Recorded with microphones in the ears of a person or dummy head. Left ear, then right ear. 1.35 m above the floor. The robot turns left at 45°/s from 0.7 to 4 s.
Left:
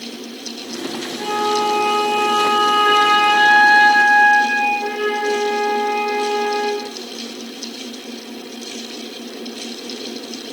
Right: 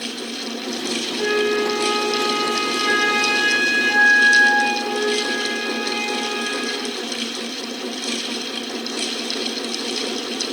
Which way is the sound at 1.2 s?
165° right.